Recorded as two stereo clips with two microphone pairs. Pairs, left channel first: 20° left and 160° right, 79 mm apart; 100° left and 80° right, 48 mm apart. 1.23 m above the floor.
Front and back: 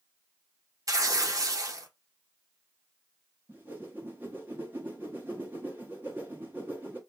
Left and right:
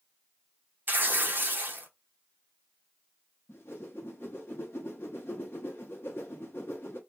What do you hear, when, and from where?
0.9 s tearing paper: 120° right, 0.7 m
3.5 s a whoosh: 135° left, 1.0 m